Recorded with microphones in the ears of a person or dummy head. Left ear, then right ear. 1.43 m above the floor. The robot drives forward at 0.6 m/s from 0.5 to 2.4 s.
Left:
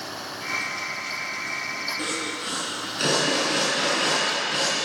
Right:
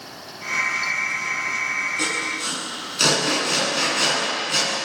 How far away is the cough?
I don't hear a cough.